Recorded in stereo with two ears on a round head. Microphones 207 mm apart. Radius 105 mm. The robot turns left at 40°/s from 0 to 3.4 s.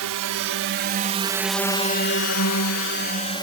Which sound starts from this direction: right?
A drone, at 0.0 s.